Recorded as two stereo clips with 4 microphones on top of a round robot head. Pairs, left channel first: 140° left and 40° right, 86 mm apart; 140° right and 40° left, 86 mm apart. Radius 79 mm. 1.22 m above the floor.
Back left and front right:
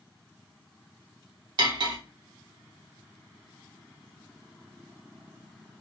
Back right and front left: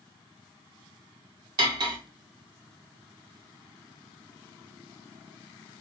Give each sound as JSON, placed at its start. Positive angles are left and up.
{"t": 1.6, "sound": "cutlery clinking", "azimuth_deg": 0, "distance_m": 0.8}